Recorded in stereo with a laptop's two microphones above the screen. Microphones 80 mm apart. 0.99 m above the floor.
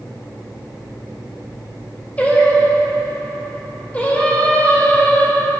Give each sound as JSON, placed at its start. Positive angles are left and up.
{"t": 2.2, "sound": "singing", "side_deg": 20, "distance_m": 4.0}